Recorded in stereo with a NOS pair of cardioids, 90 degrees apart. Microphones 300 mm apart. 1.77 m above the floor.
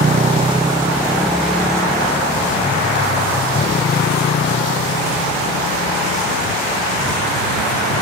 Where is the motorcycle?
30° right; by 8.0 s 55° left.